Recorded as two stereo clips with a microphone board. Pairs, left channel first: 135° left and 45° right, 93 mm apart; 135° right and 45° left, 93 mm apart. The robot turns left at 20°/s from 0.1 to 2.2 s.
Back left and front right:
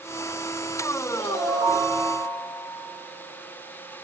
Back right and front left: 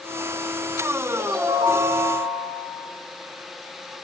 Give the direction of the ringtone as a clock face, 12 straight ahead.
10 o'clock.